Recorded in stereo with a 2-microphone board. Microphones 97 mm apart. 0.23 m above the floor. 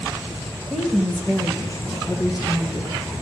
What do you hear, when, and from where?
0.7 s a woman speaking: 5° right (ahead or behind), 1.0 m; by 3.1 s 60° left (ahead or behind), 2 m